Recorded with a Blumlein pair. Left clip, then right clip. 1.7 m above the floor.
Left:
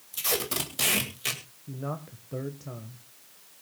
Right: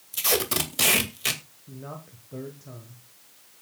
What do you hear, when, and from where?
0.1 s tape being pulled: 15° right, 2 m
1.7 s a man speaking: 15° left, 1.5 m